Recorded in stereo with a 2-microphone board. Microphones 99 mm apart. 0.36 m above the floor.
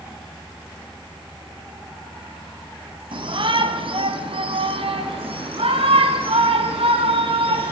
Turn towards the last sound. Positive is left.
turn(degrees=-70)  # may be behind; listen again after turning